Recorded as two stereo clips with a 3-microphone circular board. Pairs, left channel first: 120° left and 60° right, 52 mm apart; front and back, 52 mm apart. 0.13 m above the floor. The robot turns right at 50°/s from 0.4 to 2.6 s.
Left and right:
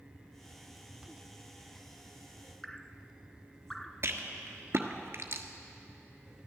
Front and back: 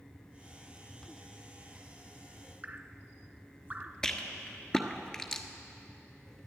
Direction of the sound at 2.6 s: 165° right.